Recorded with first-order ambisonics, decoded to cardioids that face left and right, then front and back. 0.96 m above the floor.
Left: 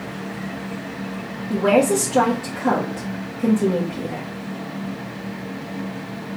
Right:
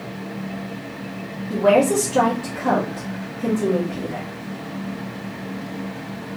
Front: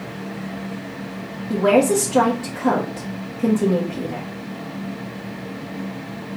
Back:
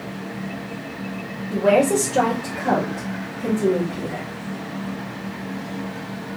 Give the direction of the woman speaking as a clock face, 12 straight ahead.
11 o'clock.